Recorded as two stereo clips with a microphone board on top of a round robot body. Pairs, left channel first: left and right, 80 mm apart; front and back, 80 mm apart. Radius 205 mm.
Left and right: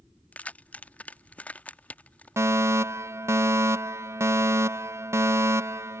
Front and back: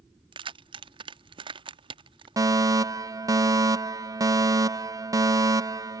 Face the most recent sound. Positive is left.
turn(degrees=-140)